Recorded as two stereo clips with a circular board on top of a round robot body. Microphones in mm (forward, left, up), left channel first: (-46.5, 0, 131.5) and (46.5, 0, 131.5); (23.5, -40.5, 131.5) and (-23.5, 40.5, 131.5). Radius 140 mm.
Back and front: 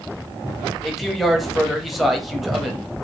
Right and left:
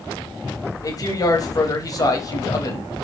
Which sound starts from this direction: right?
A man speaking, at 0.8 s.